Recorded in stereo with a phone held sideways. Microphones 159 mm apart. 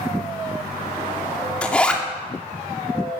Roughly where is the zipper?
Centre.